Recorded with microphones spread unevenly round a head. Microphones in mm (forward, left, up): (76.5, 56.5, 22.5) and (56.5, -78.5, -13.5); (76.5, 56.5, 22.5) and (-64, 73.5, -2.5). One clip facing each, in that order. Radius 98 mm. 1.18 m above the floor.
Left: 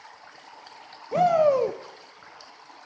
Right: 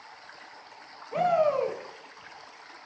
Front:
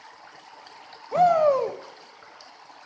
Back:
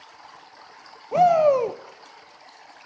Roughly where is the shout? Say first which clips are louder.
Left 4 dB, back 2 dB; behind left.